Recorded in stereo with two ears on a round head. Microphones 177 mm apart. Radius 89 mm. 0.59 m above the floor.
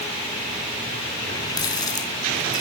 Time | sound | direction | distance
1.2 | a running tap | 20° left (ahead or behind) | 4 m